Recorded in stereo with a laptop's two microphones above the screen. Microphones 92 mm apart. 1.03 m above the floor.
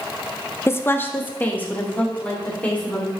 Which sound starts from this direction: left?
A woman speaking, at 0.7 s.